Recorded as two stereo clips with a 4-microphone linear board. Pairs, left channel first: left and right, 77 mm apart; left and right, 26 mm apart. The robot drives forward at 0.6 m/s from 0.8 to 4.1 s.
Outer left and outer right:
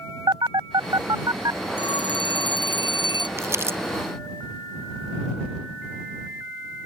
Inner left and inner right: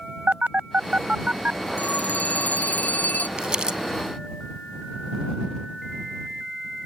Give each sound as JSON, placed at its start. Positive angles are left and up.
{"t": 0.3, "sound": "a phone buzzing", "side_deg": -75}
{"t": 1.8, "sound": "a phone ringing", "side_deg": 85}
{"t": 3.4, "sound": "crumpling", "side_deg": -35}